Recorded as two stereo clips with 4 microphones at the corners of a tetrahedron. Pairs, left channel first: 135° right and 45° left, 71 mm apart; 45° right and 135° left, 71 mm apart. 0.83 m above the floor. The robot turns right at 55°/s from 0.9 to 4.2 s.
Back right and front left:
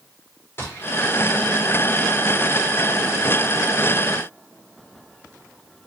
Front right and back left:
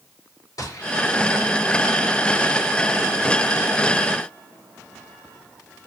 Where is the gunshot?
80° right, 2 m; by 0.9 s 75° right, 2 m.